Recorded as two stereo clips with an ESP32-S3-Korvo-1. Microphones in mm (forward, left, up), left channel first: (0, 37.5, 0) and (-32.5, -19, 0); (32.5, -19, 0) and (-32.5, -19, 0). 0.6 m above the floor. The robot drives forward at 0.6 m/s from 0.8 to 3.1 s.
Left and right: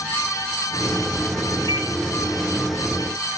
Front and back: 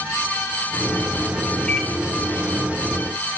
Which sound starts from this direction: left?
A microwave, at 1.7 s.